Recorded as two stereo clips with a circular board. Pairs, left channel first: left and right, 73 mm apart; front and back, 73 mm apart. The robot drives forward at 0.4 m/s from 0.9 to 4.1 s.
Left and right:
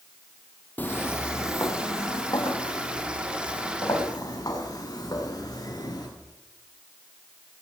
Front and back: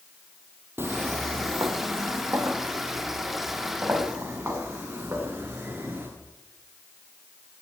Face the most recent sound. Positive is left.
turn(degrees=125)